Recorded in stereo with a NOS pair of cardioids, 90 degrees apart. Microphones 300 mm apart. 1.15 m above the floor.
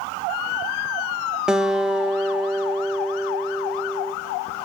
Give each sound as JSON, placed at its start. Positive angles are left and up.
{"t": 1.5, "sound": "a guitar", "azimuth_deg": -5, "distance_m": 0.7}